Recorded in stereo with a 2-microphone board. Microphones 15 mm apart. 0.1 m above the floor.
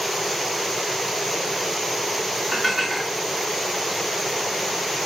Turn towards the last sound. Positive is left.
turn(degrees=0)  # may be behind; listen again after turning